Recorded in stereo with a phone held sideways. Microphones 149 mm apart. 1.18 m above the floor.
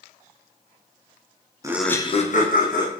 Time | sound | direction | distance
1.6 | laughter | 20° right (ahead or behind) | 0.6 m